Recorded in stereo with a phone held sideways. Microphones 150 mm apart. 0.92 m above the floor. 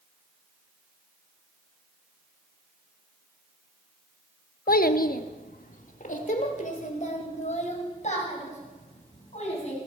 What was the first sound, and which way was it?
A child speaking, 85° left.